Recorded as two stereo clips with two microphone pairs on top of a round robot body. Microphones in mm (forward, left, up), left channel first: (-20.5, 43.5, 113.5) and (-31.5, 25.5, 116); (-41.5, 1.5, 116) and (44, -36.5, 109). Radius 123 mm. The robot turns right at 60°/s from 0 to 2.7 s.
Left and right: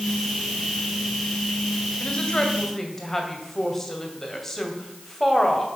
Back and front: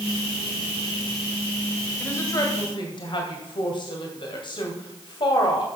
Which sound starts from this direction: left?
A woman speaking, at 2.0 s.